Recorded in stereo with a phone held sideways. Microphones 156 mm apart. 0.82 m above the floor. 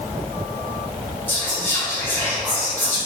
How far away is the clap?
I don't hear a clap.